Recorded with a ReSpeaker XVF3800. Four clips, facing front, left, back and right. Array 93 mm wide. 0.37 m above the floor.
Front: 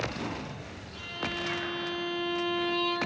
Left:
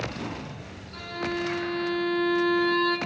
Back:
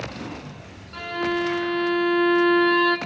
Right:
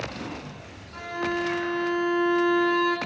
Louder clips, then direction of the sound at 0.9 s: Right 3 dB, back 11 dB; 160° right.